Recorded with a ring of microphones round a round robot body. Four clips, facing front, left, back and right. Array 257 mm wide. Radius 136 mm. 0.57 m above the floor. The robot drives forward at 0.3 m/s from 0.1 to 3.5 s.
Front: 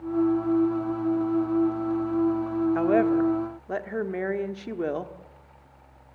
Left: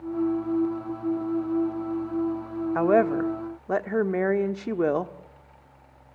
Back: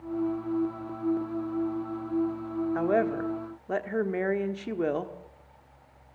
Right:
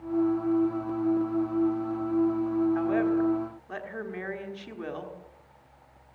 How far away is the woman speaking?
About 1.4 m.